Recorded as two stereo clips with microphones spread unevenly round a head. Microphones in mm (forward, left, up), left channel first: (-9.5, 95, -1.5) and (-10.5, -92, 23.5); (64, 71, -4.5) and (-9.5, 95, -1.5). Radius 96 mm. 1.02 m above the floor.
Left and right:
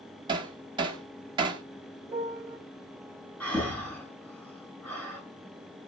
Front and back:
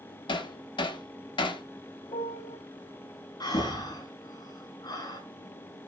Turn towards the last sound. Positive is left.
turn(degrees=5)